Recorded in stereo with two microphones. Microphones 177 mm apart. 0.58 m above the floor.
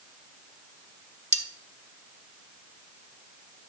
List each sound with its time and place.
1.3 s cutlery clinking: 40° right (ahead or behind), 1.3 m